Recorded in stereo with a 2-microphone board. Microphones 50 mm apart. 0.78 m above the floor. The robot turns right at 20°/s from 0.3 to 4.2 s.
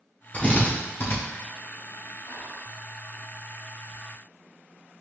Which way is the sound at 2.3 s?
60° left (ahead or behind).